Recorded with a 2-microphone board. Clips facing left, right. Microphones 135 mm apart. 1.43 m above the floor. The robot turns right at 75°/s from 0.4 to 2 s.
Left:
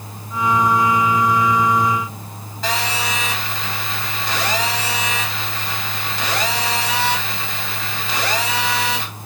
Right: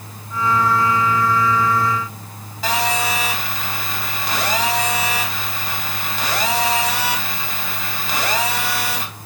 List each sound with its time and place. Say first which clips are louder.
2.6 s a phone buzzing: right 3 dB; centre (ahead or behind), 2.5 m